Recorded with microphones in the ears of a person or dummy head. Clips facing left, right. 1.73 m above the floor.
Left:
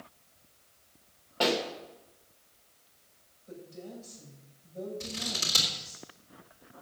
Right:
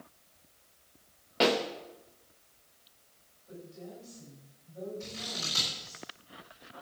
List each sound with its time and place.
1.4 s a pop: 20° right (ahead or behind), 1.1 m
3.5 s a woman speaking: 40° left (ahead or behind), 7.5 m
5.0 s scissors: 50° left (ahead or behind), 3.5 m